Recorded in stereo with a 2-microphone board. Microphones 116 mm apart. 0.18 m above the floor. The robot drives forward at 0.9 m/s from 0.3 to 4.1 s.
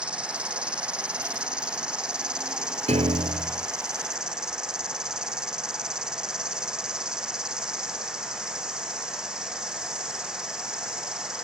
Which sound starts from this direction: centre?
An insect, at 0.0 s.